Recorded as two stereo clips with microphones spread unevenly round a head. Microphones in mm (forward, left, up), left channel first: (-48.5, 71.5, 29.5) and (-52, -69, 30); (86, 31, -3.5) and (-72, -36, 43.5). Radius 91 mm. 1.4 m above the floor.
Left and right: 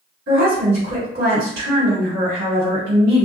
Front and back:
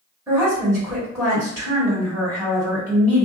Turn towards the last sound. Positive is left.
turn(degrees=-80)